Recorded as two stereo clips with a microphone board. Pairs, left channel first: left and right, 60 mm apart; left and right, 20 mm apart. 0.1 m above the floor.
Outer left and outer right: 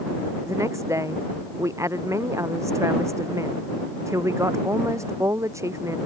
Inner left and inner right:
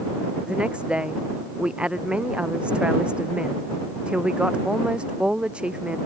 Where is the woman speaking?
60° right (ahead or behind).